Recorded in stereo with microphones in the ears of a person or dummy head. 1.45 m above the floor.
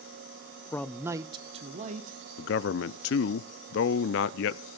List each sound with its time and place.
0.7 s a man speaking: 20° left (ahead or behind), 0.6 m; by 2.2 s 40° right (ahead or behind), 1.8 m
2.4 s a man speaking: 65° left (ahead or behind), 0.5 m